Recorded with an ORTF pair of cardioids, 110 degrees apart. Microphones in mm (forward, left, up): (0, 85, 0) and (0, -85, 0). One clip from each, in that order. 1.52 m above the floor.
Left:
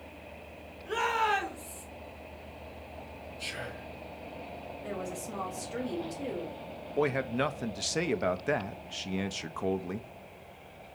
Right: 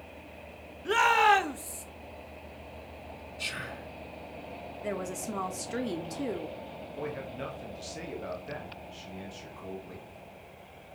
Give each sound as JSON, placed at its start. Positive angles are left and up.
{"t": 0.8, "sound": "a shout", "azimuth_deg": -70, "distance_m": 2.0}
{"t": 3.4, "sound": "whispering", "azimuth_deg": -45, "distance_m": 4.0}
{"t": 4.8, "sound": "a woman speaking", "azimuth_deg": -40, "distance_m": 2.5}
{"t": 7.0, "sound": "a man speaking", "azimuth_deg": 65, "distance_m": 1.0}